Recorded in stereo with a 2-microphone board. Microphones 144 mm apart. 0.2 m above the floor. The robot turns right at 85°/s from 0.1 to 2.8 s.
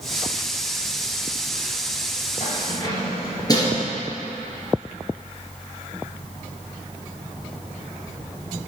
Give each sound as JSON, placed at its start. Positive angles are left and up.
{"t": 2.4, "sound": "keys jangling", "side_deg": 55, "distance_m": 2.5}